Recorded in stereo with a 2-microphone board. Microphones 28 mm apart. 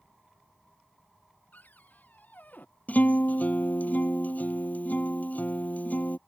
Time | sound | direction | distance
1.5 | a cupboard door | 85° left | ?
2.9 | a guitar | 70° left (ahead or behind) | ?